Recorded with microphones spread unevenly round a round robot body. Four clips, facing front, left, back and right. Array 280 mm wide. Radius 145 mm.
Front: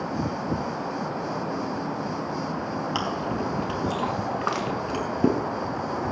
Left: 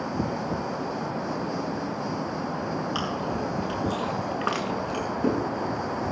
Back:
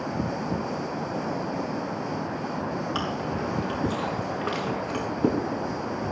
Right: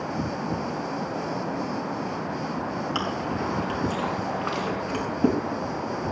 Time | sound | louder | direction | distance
3.0 | chewing | right 1 dB, front 1 dB | 25° right | 4.5 m
4.3 | crushing | even, front 2 dB | 50° left | 2.5 m